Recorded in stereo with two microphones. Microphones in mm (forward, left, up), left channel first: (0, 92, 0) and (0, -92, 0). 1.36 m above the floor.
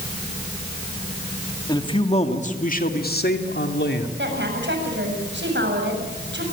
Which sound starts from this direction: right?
A woman speaking, at 4.2 s.